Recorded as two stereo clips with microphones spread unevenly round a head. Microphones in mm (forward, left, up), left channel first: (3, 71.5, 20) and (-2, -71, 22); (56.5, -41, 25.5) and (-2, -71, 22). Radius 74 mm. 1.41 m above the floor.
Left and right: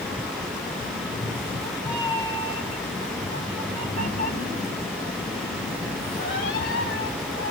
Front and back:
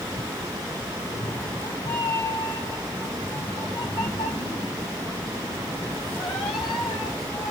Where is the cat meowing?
10° left, 1.8 m; by 7.5 s 70° left, 4 m.